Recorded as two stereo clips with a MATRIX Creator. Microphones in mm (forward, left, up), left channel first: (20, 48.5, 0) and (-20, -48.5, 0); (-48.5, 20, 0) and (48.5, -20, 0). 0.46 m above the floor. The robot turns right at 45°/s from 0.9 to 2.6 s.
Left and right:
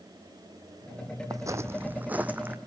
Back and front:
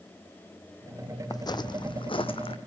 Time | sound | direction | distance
1.3 | footsteps | 160° right | 0.9 m